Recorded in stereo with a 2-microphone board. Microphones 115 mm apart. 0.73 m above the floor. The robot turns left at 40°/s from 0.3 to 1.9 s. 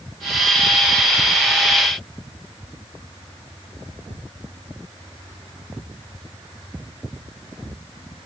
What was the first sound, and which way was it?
Only background noise.